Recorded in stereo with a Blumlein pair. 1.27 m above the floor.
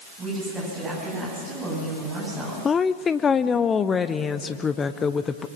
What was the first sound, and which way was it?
A woman speaking, 25° right.